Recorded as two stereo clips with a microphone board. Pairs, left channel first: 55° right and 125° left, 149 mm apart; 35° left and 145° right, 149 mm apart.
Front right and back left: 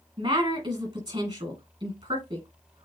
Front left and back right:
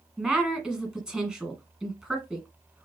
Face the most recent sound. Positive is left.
turn(degrees=135)